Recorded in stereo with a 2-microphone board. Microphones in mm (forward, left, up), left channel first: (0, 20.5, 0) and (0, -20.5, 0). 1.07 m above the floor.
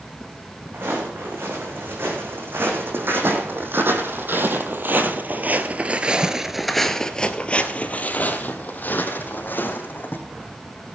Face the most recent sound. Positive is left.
turn(degrees=50)  # may be behind; listen again after turning